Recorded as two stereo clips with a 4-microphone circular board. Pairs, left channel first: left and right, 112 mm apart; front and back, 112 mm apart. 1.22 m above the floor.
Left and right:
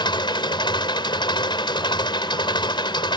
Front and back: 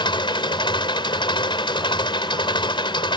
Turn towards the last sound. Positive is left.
turn(degrees=45)